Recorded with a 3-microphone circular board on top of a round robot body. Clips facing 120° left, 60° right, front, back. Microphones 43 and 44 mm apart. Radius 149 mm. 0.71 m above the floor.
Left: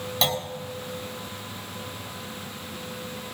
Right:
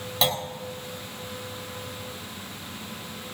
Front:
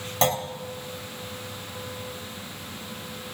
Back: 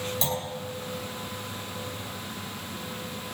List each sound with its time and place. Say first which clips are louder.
0.2 s a clunk: even, front 10 dB; 30° left, 1.8 m